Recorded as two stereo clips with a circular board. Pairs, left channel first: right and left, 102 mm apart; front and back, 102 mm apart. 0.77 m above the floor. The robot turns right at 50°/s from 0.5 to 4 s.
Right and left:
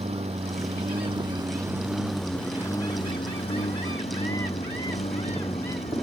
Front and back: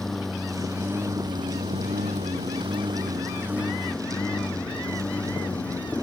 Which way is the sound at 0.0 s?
90° left.